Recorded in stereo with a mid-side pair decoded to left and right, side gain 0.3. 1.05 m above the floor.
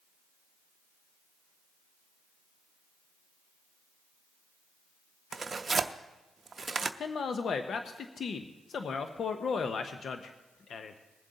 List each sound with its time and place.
5.3 s tearing paper: 50° right, 0.6 m
7.0 s a man speaking: 70° left, 0.7 m